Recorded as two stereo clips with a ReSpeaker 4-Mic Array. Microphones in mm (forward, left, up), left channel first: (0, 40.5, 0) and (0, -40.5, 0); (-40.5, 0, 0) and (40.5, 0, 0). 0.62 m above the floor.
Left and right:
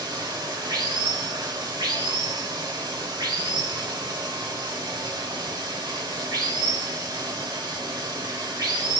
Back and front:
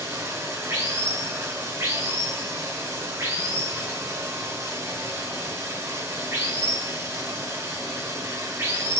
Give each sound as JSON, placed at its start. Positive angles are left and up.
{"t": 0.0, "sound": "running water", "azimuth_deg": -55, "distance_m": 1.3}